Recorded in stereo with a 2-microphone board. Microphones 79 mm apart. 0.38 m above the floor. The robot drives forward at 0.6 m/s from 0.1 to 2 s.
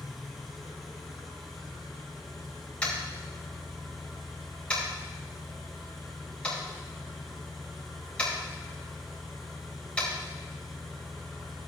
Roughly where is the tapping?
Centre.